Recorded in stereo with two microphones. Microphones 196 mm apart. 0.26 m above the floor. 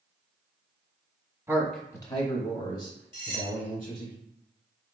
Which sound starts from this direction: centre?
A man speaking, at 1.5 s.